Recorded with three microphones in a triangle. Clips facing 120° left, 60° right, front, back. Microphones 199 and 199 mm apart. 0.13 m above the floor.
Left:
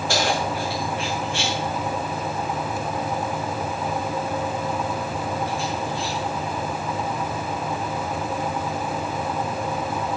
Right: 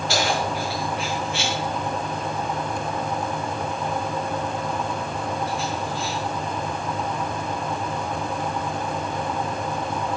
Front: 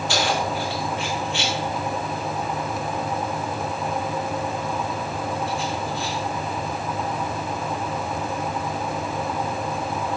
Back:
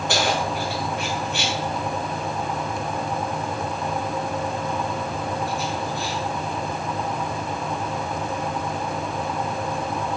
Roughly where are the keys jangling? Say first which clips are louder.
Left 1 dB, back 1 dB; behind left.